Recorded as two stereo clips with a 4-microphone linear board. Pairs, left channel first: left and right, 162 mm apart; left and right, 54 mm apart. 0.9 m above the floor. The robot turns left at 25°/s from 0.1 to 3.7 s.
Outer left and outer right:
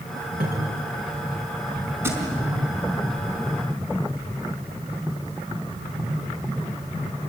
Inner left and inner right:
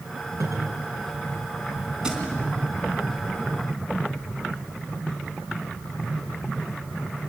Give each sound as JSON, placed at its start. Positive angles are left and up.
{"t": 0.4, "sound": "a cupboard door", "side_deg": -65, "distance_m": 5.5}
{"t": 2.0, "sound": "a thud", "side_deg": -15, "distance_m": 4.0}